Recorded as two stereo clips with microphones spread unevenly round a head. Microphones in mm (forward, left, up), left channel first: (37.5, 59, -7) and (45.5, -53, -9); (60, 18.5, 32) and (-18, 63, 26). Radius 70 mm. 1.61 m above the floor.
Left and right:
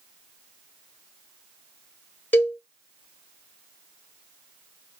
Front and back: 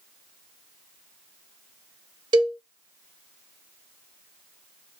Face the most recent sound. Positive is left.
turn(degrees=160)